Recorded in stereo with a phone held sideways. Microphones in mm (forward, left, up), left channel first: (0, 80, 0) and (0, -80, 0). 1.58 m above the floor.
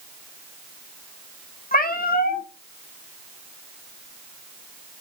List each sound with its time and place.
1.7 s a cat meowing: 65° left (ahead or behind), 2 m